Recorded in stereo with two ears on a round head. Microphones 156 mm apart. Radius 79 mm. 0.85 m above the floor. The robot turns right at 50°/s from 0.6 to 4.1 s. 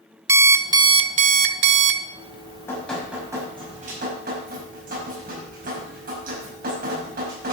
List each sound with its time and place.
0.3 s an alarm clock: 160° right, 0.7 m; by 2.0 s 90° right, 0.7 m
2.1 s dripping: 140° left, 5.5 m; by 7.5 s 125° right, 5.5 m